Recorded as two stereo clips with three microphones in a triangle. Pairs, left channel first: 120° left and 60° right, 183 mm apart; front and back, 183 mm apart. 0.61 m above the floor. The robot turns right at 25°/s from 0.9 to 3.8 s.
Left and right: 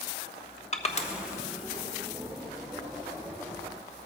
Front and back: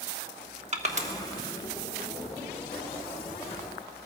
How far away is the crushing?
About 1.2 m.